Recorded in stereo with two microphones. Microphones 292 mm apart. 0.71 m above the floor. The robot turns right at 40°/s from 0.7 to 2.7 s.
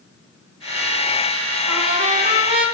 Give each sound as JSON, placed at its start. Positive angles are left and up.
{"t": 1.7, "sound": "a trumpet", "azimuth_deg": -55, "distance_m": 0.6}